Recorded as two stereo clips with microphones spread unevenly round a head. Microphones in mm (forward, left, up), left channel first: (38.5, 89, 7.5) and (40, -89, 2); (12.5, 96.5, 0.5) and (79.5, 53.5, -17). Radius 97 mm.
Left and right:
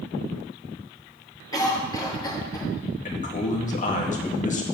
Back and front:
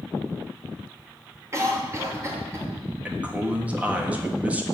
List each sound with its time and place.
1.5 s a cough: 20° left, 3 m
3.0 s a man speaking: 45° left, 1.8 m